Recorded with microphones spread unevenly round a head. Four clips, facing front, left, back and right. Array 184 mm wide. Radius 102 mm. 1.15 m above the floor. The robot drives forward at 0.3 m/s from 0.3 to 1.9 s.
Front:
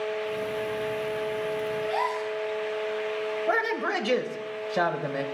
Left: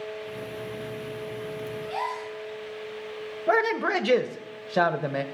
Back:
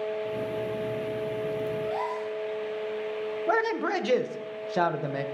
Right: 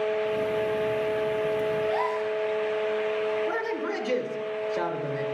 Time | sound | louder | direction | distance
1.8 | a gasp | right 5 dB, front 2 dB | 145° right | 1.8 m
3.5 | a man speaking | left 5 dB, back 2 dB | 90° left | 0.8 m